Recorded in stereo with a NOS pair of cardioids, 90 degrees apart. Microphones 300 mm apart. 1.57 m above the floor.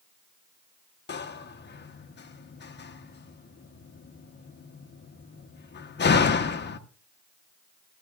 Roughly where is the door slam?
Ahead left.